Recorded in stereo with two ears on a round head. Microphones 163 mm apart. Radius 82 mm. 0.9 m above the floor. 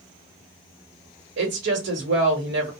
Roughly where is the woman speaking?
Right.